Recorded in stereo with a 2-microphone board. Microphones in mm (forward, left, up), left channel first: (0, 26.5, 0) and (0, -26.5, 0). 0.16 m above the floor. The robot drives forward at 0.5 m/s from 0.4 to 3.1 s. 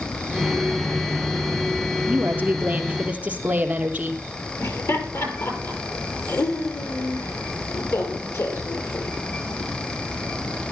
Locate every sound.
2.1 s a woman speaking: 30° right (ahead or behind), 3 m
4.6 s laughter: 65° left (ahead or behind), 4.5 m